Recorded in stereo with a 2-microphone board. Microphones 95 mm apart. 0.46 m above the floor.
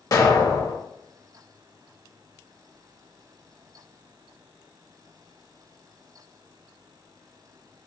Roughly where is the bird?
No bird in this recording.